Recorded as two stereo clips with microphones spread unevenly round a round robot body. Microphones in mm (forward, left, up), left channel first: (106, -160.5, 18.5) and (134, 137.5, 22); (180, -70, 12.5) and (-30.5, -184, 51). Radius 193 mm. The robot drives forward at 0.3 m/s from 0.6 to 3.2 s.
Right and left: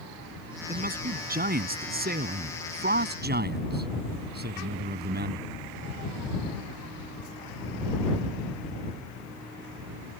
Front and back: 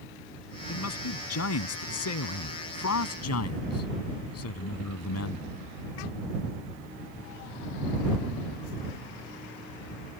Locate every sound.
0.7 s a man speaking: 25° left; by 5.5 s 30° left